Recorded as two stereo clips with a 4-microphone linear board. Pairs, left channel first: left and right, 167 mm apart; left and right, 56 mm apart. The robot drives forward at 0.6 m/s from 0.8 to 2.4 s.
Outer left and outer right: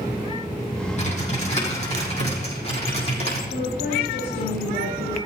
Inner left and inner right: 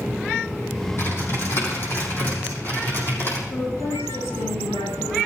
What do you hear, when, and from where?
1.0 s typing on a keyboard: 45° left (ahead or behind), 6 m; by 3.4 s 40° left (ahead or behind), 6.5 m
3.5 s a woman speaking: 75° left (ahead or behind), 9 m